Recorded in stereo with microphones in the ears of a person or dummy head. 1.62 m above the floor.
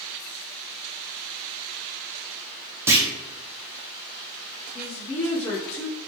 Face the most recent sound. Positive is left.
turn(degrees=15)  # may be behind; listen again after turning